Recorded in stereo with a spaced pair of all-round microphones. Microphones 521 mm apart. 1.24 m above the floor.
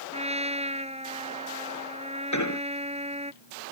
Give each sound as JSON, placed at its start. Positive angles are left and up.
{"t": 0.1, "sound": "a trumpet", "side_deg": -10}
{"t": 2.3, "sound": "an explosion", "side_deg": 35}